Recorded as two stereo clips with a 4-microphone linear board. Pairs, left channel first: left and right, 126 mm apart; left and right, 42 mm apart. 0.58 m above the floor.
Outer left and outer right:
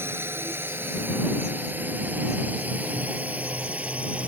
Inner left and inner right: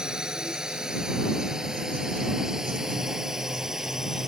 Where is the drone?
20° right (ahead or behind); by 4.3 s 10° right (ahead or behind).